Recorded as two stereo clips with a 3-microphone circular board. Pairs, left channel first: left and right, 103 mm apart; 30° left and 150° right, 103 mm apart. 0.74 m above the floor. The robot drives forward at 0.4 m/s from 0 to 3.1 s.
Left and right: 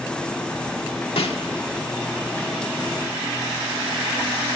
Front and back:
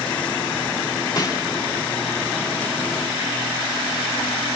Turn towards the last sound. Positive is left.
turn(degrees=110)